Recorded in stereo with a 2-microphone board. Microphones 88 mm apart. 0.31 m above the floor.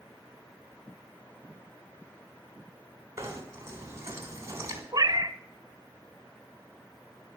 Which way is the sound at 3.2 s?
30° right (ahead or behind).